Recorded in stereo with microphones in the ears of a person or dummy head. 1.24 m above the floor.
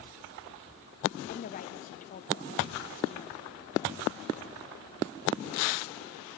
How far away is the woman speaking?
About 0.8 m.